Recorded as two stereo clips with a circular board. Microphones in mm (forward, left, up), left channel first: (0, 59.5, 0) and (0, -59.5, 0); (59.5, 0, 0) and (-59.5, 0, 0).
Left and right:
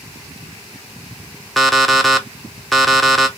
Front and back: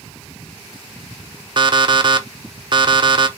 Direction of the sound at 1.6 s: Straight behind.